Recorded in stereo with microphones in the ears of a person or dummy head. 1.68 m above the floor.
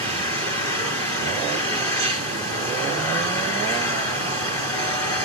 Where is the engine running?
20° left (ahead or behind), 4.5 m.